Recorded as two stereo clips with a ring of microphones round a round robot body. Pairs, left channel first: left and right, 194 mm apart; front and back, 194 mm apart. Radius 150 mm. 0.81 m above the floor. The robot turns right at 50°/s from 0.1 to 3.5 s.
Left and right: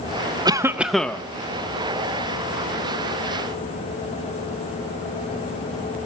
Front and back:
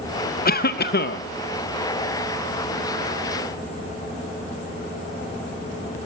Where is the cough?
25° right, 0.7 m; by 1.2 s 15° left, 0.7 m.